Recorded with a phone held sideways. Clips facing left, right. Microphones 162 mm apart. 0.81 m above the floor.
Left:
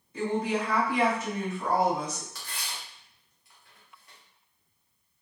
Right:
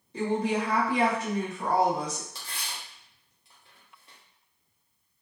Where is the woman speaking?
30° right (ahead or behind), 1.5 m.